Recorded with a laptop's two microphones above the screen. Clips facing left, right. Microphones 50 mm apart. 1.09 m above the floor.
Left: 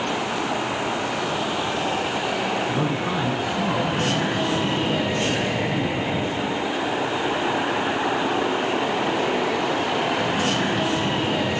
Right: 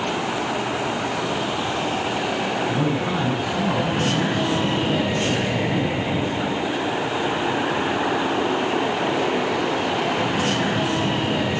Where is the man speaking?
30° left (ahead or behind), 10 m.